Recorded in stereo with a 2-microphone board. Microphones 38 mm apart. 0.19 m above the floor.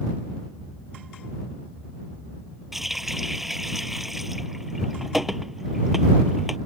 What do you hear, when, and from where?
2.7 s a running tap: 5° right (ahead or behind)